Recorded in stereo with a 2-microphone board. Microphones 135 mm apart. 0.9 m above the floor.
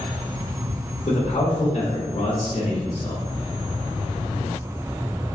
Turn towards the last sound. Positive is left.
turn(degrees=50)  # may be behind; listen again after turning